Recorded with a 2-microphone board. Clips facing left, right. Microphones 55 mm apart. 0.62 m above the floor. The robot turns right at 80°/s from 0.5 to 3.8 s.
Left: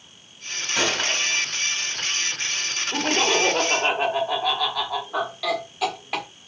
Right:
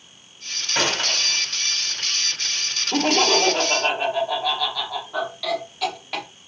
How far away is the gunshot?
About 2 m.